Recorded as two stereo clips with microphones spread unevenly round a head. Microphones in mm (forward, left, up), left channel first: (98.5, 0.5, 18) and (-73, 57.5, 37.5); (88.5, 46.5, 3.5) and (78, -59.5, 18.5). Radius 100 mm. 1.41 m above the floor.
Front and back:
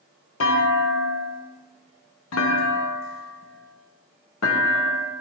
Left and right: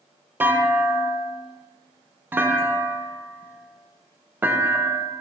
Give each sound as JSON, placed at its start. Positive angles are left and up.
{"t": 0.4, "sound": "a clunk", "azimuth_deg": -25, "distance_m": 0.9}